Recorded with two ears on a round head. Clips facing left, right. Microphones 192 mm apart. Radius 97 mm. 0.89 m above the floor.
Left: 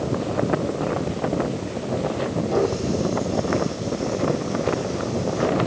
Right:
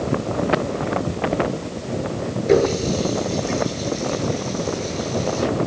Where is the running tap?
85° right, 10 m.